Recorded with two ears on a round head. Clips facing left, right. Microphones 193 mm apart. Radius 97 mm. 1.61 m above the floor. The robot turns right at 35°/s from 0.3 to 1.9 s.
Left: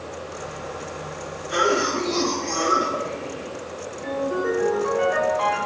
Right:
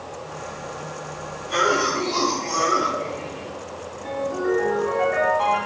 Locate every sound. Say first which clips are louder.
1.5 s a cough: left 1 dB; 10° left (ahead or behind), 1.8 m; by 3.5 s 25° left (ahead or behind), 1.8 m
4.0 s a ringtone: even; 75° left (ahead or behind), 3.5 m